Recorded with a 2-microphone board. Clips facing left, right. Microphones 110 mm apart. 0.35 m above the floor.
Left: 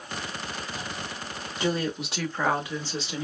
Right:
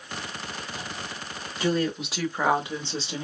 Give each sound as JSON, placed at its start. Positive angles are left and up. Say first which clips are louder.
{"t": 1.6, "sound": "a woman speaking", "louder": "right 2 dB", "side_deg": 20, "distance_m": 0.9}